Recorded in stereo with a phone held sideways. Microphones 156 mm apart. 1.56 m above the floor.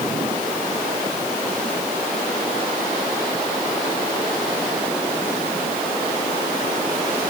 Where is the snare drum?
I don't hear a snare drum.